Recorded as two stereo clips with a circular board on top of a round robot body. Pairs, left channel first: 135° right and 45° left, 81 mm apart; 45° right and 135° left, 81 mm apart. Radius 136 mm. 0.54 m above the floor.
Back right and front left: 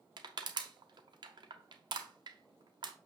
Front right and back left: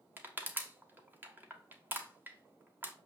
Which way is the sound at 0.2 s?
65° left.